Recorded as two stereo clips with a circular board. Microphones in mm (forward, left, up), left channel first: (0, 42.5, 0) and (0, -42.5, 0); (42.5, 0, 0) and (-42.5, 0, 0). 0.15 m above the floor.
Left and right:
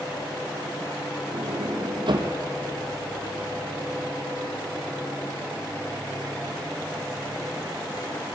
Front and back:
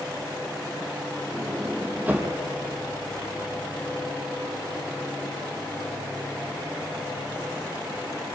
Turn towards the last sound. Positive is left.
turn(degrees=-110)